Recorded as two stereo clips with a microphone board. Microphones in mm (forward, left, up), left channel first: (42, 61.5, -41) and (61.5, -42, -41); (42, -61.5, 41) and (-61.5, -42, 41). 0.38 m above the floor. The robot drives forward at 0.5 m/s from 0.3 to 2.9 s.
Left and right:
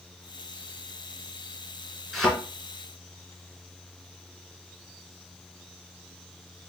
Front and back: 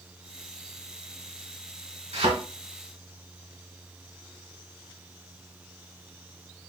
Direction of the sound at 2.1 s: 170° right.